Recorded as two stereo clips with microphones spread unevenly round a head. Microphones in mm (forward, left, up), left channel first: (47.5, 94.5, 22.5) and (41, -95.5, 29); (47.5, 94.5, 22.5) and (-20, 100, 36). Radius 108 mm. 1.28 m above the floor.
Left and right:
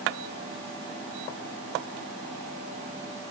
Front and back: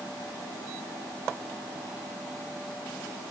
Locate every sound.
Only background noise.